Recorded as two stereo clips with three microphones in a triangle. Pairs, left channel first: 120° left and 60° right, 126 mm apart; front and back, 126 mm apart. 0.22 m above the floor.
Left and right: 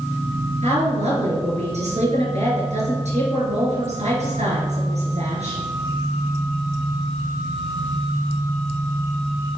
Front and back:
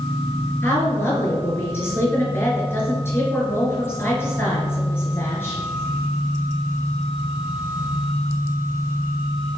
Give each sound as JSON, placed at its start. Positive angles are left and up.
{"t": 0.6, "sound": "a woman speaking", "azimuth_deg": -70, "distance_m": 4.5}